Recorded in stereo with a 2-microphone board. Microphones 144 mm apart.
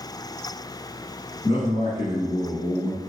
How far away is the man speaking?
About 1.4 m.